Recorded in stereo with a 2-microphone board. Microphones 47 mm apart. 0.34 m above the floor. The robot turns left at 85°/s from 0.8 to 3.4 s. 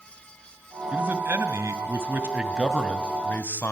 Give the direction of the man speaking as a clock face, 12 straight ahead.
1 o'clock.